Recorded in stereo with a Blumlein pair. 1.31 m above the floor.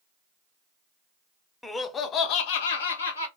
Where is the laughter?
5° left, 0.6 m; by 3.3 s 75° left, 1.0 m.